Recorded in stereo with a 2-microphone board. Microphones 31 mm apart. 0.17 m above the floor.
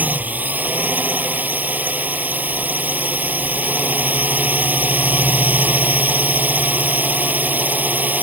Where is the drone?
65° right (ahead or behind).